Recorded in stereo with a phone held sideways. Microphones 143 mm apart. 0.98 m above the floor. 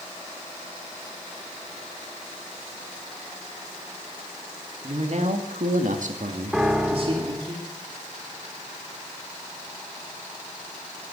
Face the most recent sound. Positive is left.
turn(degrees=-5)  # may be behind; listen again after turning